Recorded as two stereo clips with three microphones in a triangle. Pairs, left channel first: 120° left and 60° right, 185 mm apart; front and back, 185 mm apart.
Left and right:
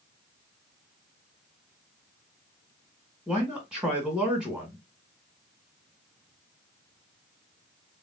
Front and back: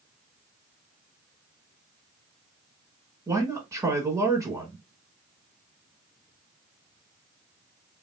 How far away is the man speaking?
About 1.1 m.